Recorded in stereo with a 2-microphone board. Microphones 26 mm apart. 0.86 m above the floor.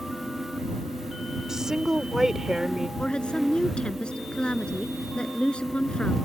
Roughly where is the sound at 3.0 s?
Left.